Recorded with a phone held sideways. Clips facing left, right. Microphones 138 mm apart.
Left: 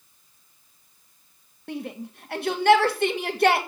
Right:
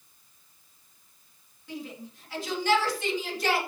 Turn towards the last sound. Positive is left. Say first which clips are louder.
# left 6 dB
turn(degrees=65)  # may be behind; listen again after turning